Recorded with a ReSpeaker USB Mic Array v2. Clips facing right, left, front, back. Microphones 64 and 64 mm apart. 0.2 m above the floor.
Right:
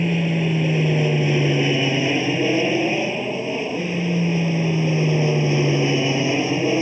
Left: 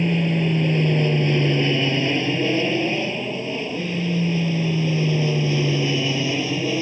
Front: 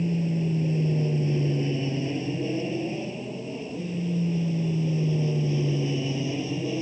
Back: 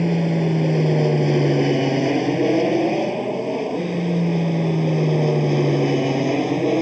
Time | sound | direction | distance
0.0 | an aircraft | 175° right | ?